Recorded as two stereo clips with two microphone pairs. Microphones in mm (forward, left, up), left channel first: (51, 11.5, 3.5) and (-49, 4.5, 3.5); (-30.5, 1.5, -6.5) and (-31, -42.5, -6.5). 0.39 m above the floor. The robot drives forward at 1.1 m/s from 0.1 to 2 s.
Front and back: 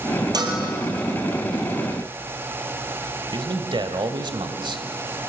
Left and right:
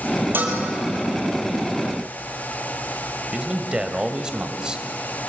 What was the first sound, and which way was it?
A bell, 130° right.